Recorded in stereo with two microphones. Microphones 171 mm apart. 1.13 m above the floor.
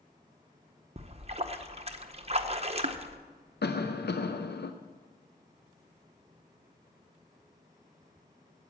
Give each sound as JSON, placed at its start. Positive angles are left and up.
{"t": 1.0, "sound": "a splash", "side_deg": -40, "distance_m": 0.7}
{"t": 3.6, "sound": "a cough", "side_deg": 75, "distance_m": 0.5}